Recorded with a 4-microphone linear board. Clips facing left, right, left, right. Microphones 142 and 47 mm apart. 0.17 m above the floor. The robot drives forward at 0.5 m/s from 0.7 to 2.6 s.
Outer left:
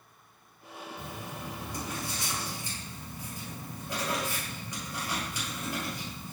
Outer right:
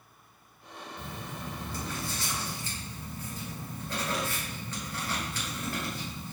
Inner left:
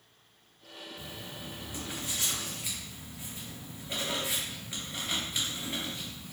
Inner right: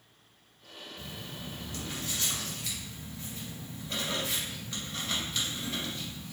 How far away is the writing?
About 1.8 m.